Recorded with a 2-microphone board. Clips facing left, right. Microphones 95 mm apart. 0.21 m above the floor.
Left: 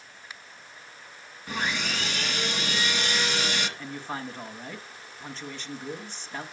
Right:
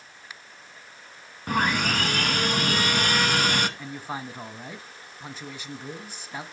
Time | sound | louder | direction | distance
1.5 | sawing | right 6 dB | 50° right (ahead or behind) | 1.2 m
3.8 | a man speaking | even | 10° right (ahead or behind) | 1.4 m